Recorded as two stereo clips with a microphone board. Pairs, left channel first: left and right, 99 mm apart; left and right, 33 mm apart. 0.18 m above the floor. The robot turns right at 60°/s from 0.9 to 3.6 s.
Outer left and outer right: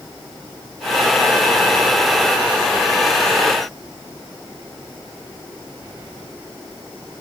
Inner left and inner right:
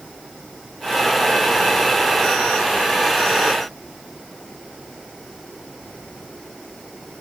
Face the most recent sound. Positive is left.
No sound to turn to.